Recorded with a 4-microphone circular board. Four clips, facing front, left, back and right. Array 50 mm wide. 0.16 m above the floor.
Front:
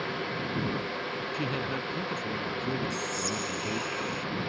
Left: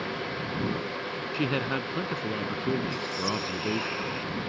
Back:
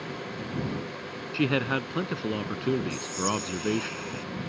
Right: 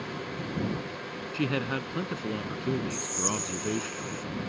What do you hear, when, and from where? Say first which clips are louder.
1.3 s a man speaking: left 1 dB, back 9 dB; 175° left
2.9 s whispering: left 3 dB, back 2 dB; 90° left